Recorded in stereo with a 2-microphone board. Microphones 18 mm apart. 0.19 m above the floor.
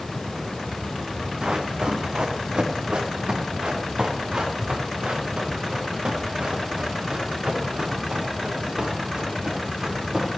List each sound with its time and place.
1.4 s running footsteps: 55° right (ahead or behind), 3 m; by 10.3 s 45° right (ahead or behind), 7.5 m